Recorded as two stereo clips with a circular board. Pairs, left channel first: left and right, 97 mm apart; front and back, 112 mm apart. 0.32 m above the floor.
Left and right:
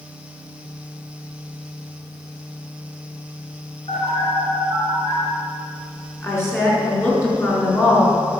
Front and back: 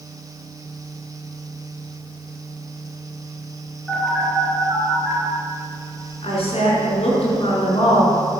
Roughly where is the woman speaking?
Ahead left.